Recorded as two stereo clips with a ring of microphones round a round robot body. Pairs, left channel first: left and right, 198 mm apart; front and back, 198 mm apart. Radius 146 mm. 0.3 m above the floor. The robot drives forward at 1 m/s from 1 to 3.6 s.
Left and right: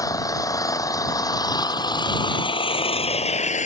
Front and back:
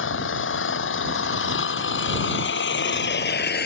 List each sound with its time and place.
0.0 s an engine running: 15° left; by 3.7 s 35° left